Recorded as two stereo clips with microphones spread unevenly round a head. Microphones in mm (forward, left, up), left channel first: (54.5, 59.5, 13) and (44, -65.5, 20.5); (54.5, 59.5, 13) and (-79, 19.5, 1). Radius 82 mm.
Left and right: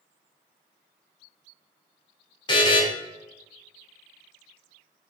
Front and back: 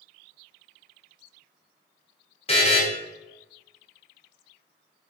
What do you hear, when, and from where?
2.5 s a buzzer: 40° left, 0.8 m